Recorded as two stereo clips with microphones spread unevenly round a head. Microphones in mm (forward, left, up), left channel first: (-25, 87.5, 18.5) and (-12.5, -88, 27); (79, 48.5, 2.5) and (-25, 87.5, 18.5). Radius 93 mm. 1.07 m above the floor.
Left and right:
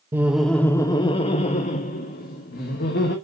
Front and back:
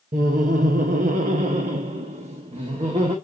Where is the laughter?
165° right, 0.9 m; by 3.1 s 125° left, 2 m.